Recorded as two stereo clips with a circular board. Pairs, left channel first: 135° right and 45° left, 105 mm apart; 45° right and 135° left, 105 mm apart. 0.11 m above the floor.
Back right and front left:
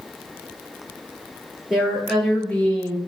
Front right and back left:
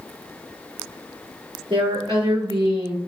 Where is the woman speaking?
130° left, 1.9 m; by 3.0 s 165° left, 1.5 m.